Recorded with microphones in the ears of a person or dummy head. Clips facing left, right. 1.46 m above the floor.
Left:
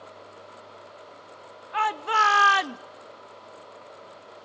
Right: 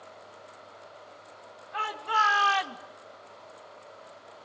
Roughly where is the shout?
Left.